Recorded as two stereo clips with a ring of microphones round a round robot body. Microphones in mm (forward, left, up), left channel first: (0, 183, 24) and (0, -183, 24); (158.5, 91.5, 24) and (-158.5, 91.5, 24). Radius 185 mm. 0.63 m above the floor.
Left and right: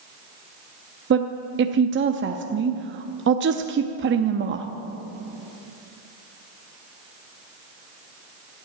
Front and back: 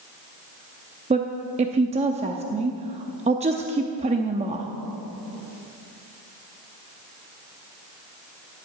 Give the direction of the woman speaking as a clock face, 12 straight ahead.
4 o'clock.